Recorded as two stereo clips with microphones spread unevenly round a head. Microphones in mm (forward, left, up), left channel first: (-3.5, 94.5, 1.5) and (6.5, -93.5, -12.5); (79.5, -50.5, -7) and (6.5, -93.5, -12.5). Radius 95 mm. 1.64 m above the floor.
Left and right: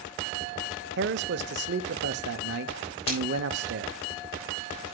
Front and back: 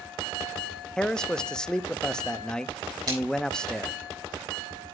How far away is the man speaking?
About 0.7 m.